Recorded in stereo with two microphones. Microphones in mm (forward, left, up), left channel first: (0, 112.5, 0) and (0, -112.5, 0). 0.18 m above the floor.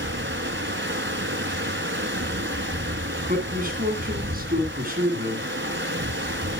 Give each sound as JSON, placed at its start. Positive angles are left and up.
{"t": 0.0, "sound": "running water", "side_deg": -55, "distance_m": 1.0}
{"t": 3.3, "sound": "a man speaking", "side_deg": -40, "distance_m": 1.8}